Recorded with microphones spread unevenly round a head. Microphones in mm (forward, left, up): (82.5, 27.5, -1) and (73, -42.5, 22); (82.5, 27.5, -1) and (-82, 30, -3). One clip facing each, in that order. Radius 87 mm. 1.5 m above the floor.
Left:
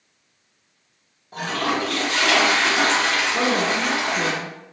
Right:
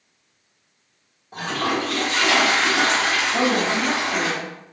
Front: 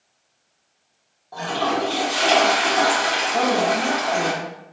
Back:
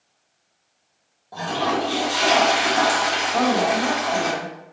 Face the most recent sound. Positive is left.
turn(degrees=-115)